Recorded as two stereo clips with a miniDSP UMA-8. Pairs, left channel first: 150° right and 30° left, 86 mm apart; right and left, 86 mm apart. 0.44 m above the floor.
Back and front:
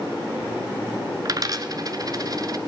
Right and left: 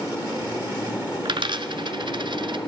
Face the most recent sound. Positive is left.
turn(degrees=70)